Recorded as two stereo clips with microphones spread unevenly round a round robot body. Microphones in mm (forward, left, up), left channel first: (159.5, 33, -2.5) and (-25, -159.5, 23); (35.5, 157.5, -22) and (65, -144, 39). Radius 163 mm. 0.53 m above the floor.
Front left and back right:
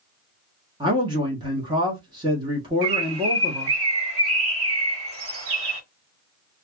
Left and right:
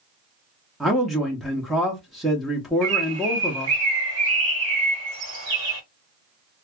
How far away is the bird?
About 1.5 m.